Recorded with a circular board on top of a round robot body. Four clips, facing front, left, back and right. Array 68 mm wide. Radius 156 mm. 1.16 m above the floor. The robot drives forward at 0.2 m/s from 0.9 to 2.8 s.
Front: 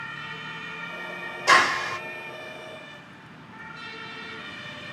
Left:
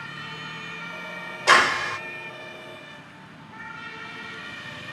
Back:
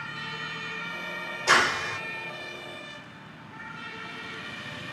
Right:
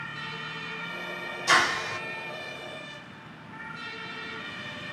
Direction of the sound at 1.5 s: 85° left.